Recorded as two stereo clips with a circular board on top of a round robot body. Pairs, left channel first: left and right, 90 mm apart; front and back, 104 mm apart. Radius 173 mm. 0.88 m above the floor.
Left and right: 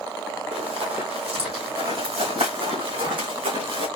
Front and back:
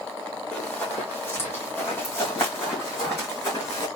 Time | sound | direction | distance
0.5 | running footsteps | 80° right | 1.2 m